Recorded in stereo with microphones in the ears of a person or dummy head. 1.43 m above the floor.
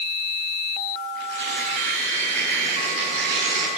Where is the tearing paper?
70° right (ahead or behind), 5.5 m.